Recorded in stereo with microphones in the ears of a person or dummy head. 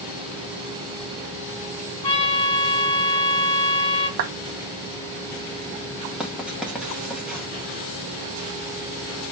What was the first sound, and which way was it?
A trumpet, 15° left (ahead or behind).